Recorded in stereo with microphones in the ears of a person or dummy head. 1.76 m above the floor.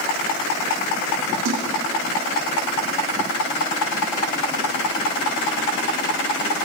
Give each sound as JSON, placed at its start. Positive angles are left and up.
{"t": 1.4, "sound": "a splash", "side_deg": -75, "distance_m": 3.0}